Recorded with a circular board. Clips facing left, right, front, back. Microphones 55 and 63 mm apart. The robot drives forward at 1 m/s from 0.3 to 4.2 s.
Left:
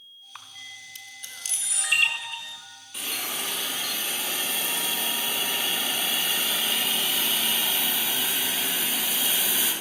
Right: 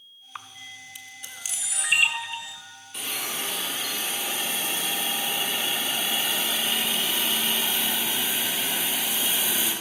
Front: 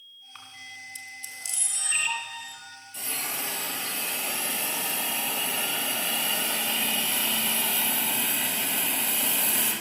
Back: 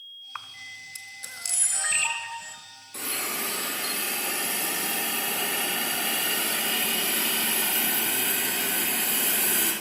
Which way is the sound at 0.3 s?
160° right.